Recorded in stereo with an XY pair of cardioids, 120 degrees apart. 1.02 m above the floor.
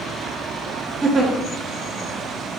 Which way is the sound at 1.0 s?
25° right.